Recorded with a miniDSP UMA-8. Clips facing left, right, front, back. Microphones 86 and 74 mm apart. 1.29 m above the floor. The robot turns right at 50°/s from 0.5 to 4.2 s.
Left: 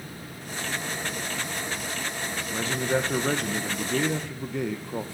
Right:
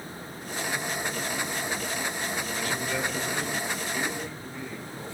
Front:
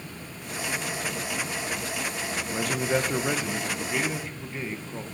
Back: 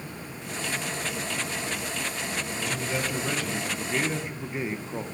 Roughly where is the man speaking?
Ahead left.